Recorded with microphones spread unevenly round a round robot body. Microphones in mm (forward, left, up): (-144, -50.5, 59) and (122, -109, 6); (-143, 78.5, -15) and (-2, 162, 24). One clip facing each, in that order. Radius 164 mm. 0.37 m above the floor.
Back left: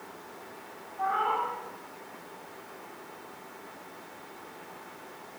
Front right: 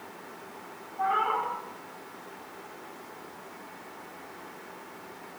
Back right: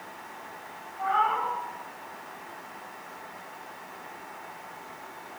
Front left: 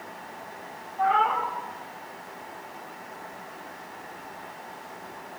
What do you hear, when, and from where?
1.0 s a cat meowing: 50° left, 10 m